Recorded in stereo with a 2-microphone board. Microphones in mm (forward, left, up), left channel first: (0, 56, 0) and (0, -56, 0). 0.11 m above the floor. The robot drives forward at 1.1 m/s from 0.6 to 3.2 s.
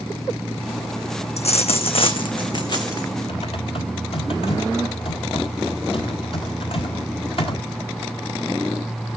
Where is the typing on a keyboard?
55° left (ahead or behind), 1.6 m.